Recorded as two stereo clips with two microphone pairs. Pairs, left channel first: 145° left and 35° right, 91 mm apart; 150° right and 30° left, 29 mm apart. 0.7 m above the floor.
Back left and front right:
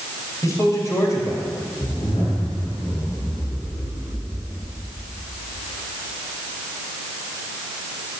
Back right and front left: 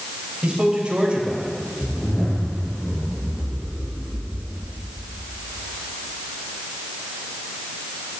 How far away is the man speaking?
About 4.5 m.